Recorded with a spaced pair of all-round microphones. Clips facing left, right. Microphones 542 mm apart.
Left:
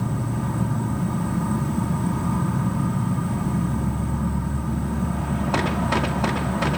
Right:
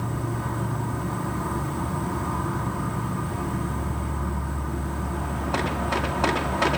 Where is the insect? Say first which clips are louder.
Left 3 dB; 50° left (ahead or behind), 2.5 m.